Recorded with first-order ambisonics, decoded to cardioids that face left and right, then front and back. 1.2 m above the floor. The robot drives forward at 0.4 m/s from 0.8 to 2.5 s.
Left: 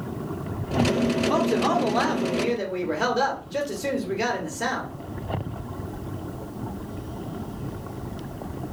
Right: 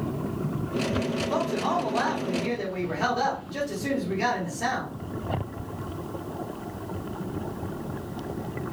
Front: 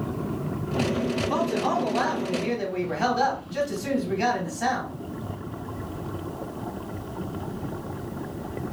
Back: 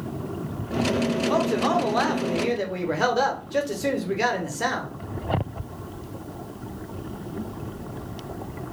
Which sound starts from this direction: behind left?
A man speaking, at 1.2 s.